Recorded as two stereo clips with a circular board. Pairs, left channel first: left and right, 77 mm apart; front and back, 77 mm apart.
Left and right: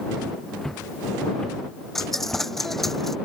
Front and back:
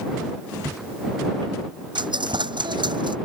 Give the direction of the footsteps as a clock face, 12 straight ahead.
6 o'clock.